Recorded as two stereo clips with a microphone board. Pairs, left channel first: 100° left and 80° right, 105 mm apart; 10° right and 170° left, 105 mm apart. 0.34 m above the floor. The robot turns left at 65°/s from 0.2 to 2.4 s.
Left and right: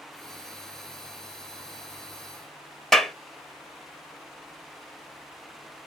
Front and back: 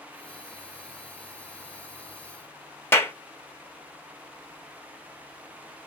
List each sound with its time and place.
2.9 s a clap: 20° left, 0.7 m